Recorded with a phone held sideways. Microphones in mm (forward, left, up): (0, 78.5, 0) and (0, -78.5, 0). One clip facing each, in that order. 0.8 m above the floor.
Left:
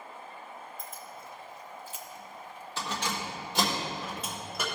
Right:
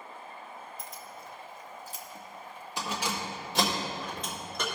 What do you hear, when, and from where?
0.8 s keys jangling: 75° right (ahead or behind), 1.1 m; by 4.8 s 10° left (ahead or behind), 2.5 m